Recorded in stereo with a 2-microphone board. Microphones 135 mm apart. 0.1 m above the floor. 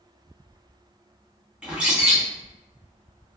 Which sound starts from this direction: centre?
A bird, at 1.6 s.